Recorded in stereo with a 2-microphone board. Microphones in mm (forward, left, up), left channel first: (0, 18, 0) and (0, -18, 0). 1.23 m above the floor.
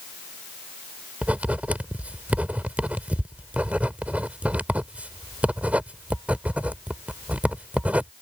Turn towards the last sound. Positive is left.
turn(degrees=-45)  # may be behind; listen again after turning